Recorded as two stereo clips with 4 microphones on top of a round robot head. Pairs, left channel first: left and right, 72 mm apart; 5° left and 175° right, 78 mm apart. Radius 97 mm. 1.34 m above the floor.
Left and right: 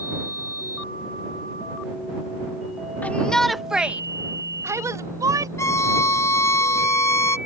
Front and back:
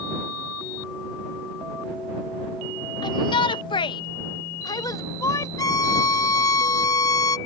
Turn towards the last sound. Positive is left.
turn(degrees=40)